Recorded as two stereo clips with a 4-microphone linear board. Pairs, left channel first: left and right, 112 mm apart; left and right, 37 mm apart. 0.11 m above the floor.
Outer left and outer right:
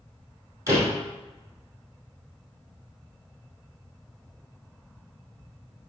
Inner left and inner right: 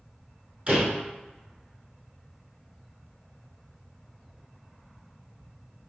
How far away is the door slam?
About 3 m.